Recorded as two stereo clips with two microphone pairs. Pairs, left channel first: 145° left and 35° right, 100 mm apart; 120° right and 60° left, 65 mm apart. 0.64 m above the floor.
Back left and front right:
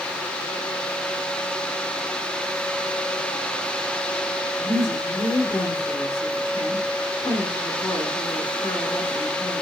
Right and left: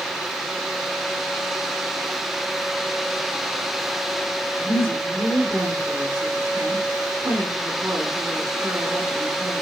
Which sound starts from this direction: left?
A woman speaking, at 4.6 s.